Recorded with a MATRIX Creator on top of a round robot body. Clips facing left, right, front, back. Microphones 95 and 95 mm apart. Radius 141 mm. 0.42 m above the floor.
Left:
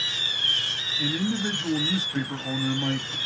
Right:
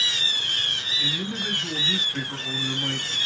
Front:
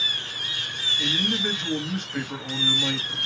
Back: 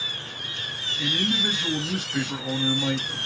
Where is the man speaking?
100° left, 1.5 m.